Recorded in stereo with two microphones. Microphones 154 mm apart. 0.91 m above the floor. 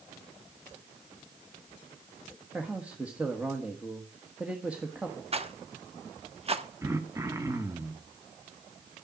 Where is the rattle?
40° right (ahead or behind), 0.8 m.